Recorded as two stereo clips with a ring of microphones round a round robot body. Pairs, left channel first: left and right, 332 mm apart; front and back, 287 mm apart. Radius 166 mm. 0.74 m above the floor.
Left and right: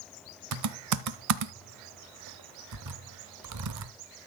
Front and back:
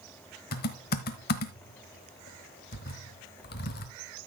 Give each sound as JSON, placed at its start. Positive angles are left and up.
{"t": 0.5, "sound": "typing on a keyboard", "azimuth_deg": -60, "distance_m": 0.9}